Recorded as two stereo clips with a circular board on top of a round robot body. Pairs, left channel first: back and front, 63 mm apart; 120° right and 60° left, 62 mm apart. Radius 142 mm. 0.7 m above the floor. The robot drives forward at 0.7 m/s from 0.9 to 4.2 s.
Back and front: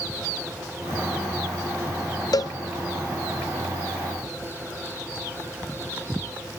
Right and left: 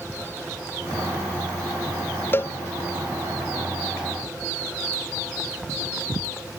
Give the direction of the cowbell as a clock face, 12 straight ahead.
6 o'clock.